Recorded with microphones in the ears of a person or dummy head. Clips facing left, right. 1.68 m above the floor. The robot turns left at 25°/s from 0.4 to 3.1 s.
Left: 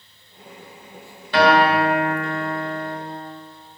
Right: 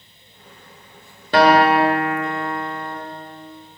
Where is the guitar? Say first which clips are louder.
Right 2 dB; 50° right, 1.6 m; by 3.0 s 95° right, 1.6 m.